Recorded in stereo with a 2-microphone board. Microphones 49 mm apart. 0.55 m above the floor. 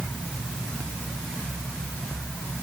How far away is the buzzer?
No buzzer in this recording.